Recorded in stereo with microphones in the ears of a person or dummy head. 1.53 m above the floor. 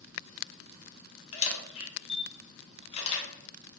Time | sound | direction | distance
1.3 | a camera shutter | 40° left (ahead or behind) | 0.7 m